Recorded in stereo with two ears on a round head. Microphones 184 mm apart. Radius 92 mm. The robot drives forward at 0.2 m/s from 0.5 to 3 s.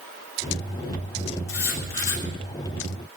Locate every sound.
1.5 s writing: 60° left (ahead or behind), 5 m